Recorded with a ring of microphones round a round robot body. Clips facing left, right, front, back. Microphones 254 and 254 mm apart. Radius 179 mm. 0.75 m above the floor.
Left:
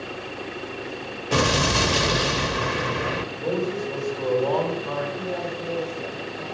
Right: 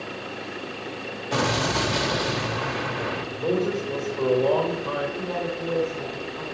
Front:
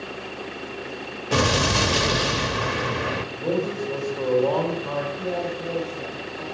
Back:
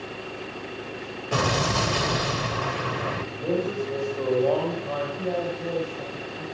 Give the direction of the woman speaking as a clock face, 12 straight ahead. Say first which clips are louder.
Right 1 dB, even; 3 o'clock.